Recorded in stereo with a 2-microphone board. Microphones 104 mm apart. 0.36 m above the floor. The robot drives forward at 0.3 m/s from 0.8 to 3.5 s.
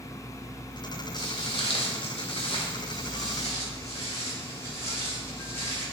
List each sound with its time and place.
1.1 s footsteps: 40° left (ahead or behind), 1.2 m; by 5.8 s 20° left (ahead or behind), 2.5 m